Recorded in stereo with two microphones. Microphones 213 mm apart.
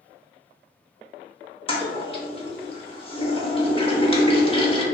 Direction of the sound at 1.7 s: 25° left (ahead or behind).